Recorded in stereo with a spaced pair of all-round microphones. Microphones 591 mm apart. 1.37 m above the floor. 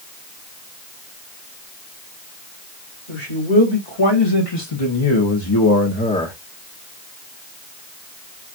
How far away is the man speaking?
About 2.5 m.